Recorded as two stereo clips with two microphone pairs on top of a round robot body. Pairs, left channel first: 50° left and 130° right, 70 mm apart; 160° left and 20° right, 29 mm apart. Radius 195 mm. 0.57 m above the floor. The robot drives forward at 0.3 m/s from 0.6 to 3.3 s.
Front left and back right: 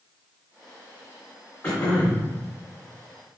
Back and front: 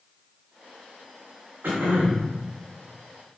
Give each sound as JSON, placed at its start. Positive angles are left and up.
{"t": 1.6, "sound": "throat clearing", "azimuth_deg": -25, "distance_m": 0.6}